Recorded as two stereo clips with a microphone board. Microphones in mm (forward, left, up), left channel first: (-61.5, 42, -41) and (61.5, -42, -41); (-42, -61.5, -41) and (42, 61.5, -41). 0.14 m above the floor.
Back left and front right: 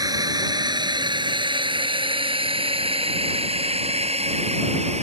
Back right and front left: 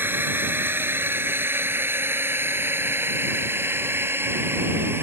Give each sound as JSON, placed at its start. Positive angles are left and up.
{"t": 0.0, "sound": "a drone", "azimuth_deg": -5}